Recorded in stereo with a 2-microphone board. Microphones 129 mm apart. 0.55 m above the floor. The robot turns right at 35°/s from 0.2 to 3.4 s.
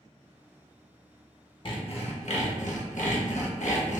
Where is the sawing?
45° left, 0.6 m; by 4.0 s 105° left, 0.6 m.